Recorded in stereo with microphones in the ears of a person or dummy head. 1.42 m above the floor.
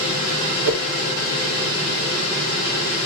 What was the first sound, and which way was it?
A whoosh, 65° right (ahead or behind).